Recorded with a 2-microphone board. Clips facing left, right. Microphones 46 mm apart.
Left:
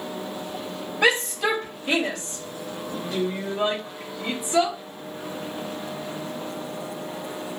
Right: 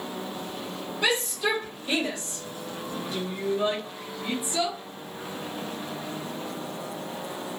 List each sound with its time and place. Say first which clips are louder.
1.0 s a shout: left 5 dB; 70° left (ahead or behind), 2.5 m